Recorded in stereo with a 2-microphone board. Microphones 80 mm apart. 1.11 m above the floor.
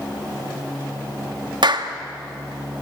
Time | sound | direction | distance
1.6 | a clap | 70° right (ahead or behind) | 1.7 m